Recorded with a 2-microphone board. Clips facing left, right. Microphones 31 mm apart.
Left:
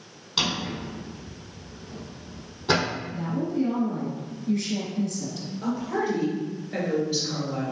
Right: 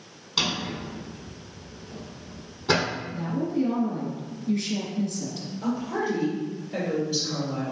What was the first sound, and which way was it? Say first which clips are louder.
A drawer: even; centre (ahead or behind).